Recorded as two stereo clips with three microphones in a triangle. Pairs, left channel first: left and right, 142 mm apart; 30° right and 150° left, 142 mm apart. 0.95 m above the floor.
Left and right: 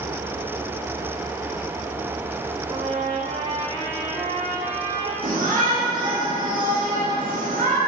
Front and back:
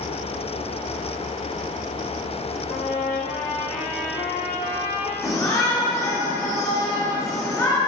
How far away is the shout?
About 2.5 m.